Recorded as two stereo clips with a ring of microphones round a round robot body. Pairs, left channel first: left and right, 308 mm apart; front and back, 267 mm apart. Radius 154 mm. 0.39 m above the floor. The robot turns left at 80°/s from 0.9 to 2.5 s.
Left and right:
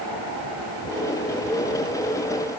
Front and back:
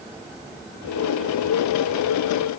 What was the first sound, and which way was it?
Only background noise.